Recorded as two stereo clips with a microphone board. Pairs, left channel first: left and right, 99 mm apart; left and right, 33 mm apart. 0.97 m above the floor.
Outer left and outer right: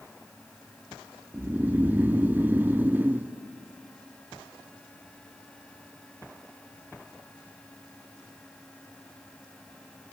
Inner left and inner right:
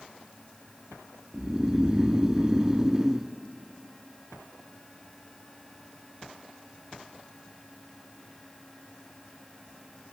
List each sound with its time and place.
1.3 s snoring: 15° right (ahead or behind), 0.5 m